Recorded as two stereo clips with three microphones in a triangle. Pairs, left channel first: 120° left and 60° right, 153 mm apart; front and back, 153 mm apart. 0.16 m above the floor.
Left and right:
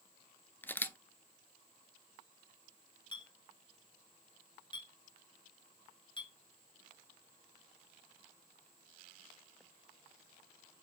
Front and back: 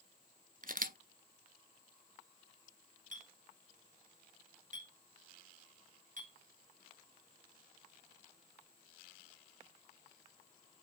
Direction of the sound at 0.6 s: 165° right.